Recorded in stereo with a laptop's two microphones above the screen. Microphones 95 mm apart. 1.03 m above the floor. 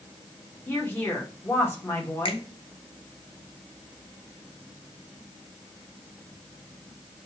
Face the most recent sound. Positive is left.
turn(degrees=60)  # may be behind; listen again after turning